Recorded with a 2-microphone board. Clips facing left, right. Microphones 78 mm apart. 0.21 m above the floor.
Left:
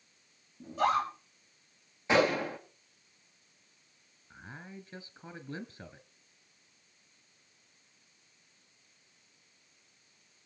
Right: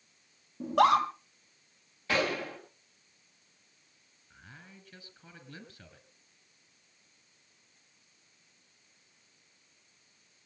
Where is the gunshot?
20° left (ahead or behind), 6 m.